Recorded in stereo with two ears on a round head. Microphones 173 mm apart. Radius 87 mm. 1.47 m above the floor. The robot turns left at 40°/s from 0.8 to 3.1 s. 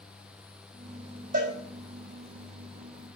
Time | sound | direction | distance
1.3 | a cowbell | 45° right (ahead or behind) | 5 m